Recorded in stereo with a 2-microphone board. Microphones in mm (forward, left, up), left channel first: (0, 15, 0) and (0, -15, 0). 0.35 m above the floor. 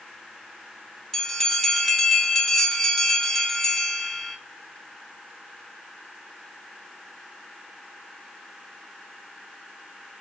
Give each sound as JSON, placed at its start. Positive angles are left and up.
{"t": 1.1, "sound": "a bell", "side_deg": 10, "distance_m": 0.8}